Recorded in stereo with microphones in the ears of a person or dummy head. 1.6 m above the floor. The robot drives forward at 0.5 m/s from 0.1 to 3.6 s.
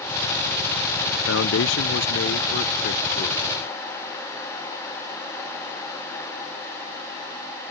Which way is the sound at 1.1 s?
85° left.